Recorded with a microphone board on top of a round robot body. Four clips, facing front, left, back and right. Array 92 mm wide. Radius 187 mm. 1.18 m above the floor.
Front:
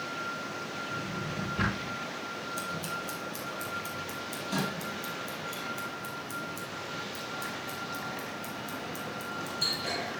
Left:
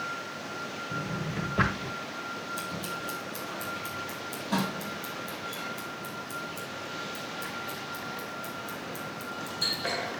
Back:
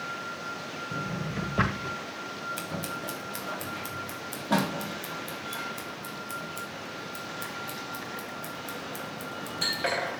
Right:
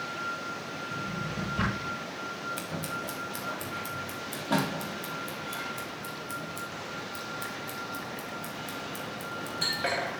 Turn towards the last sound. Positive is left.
turn(degrees=-150)